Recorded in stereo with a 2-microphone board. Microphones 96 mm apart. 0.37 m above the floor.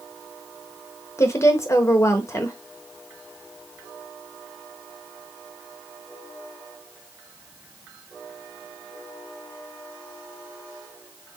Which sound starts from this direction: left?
A woman speaking, at 1.2 s.